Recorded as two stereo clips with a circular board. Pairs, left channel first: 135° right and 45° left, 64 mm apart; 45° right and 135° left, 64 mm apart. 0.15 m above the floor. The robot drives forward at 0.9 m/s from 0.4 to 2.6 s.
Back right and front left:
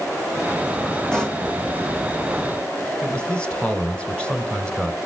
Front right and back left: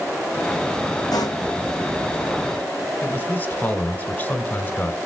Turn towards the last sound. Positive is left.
turn(degrees=-80)